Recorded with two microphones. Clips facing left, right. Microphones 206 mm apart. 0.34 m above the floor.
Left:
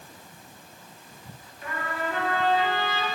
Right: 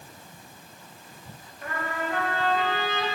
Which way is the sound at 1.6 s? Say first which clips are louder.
Even; 55° right (ahead or behind).